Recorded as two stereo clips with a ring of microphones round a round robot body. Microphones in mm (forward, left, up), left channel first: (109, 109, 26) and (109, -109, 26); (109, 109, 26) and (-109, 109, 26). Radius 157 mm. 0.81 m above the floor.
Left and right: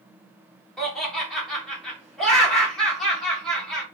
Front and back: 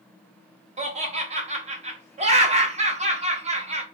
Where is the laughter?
175° left, 0.6 m.